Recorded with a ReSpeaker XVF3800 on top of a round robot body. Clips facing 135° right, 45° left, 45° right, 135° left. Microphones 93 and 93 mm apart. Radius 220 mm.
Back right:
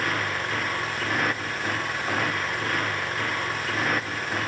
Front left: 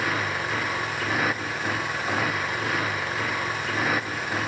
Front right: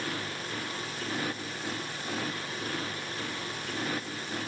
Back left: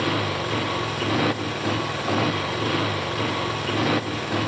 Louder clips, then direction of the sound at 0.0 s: Front left 1 dB, back left 12 dB; 130° left.